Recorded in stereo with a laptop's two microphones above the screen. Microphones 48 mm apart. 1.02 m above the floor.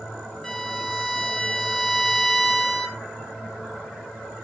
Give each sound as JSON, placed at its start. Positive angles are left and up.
{"t": 0.4, "sound": "a violin", "side_deg": 5, "distance_m": 0.8}